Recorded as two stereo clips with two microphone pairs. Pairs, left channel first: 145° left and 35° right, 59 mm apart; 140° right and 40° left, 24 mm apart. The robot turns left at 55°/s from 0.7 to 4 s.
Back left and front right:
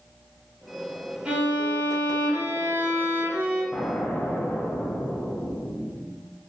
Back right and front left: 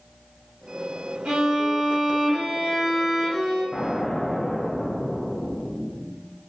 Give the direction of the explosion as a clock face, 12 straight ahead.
5 o'clock.